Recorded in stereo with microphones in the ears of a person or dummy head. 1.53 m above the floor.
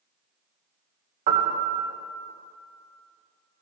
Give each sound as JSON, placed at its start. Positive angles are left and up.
{"t": 1.3, "sound": "a piano", "side_deg": -50, "distance_m": 1.1}